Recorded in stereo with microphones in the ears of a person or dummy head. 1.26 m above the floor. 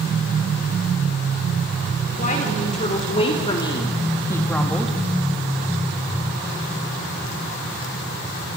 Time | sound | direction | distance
2.2 | a woman speaking | 45° left (ahead or behind) | 5 m